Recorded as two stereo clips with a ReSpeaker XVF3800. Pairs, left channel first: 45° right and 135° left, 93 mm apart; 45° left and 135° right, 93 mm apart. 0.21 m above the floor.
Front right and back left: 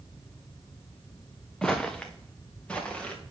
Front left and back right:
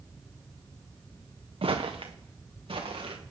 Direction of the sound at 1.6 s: 125° right.